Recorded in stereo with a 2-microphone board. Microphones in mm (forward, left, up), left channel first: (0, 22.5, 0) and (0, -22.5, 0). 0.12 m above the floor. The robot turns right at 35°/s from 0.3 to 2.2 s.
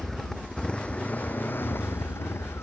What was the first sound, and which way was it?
A motorcycle, 10° left.